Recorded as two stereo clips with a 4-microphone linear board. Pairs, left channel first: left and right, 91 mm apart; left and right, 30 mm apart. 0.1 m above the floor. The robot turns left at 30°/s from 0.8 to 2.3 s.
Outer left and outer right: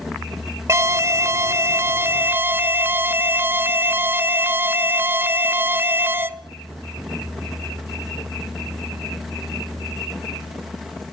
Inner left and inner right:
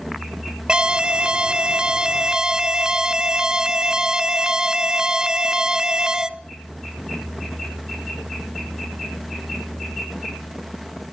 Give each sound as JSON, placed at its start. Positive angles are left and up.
{"t": 0.7, "sound": "an alarm", "azimuth_deg": -85, "distance_m": 1.0}